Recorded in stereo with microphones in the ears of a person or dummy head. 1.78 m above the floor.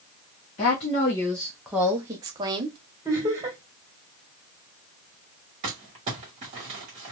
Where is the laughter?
15° right (ahead or behind), 1.6 m.